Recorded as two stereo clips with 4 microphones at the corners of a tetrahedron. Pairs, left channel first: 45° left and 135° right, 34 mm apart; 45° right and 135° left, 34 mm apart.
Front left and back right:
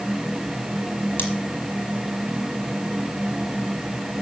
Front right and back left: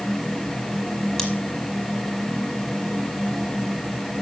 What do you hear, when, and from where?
1.2 s scissors: 35° left, 5 m